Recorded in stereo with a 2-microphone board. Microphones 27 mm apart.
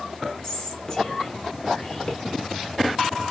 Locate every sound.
0.4 s whispering: 25° left (ahead or behind), 1.2 m